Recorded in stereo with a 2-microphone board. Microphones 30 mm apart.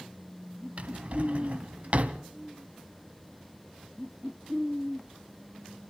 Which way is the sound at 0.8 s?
45° right (ahead or behind).